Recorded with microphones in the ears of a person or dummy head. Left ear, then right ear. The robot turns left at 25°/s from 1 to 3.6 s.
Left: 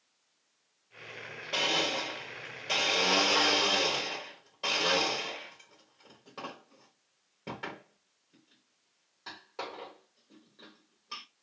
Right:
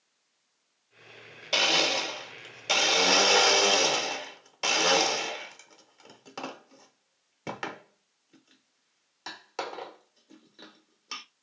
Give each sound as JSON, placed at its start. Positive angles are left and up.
{"t": 1.5, "sound": "a blender", "side_deg": -55, "distance_m": 1.0}